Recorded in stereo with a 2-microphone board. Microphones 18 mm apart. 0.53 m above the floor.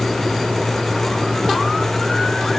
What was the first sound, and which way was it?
Only background noise.